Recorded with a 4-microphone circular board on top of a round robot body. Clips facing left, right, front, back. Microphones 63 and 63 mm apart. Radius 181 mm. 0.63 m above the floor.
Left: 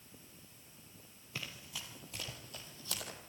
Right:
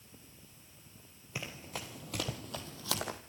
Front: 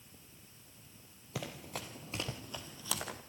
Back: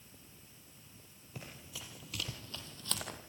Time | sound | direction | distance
1.4 | running footsteps | 15° right | 0.8 m